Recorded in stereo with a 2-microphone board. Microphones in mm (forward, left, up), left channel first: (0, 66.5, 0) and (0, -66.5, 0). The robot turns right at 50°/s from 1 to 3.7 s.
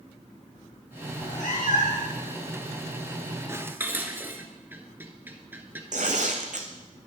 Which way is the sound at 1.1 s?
75° left.